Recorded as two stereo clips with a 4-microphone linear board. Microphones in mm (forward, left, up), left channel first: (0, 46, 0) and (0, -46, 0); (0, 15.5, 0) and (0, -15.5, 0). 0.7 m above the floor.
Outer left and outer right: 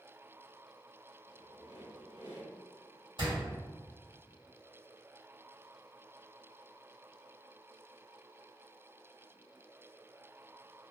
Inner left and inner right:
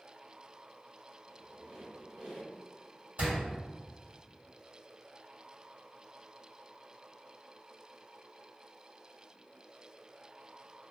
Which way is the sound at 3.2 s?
65° right (ahead or behind).